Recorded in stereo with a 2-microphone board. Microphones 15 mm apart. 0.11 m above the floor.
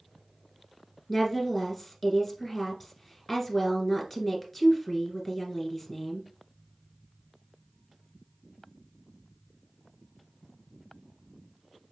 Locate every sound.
1.1 s a woman speaking: 5° left (ahead or behind), 1.6 m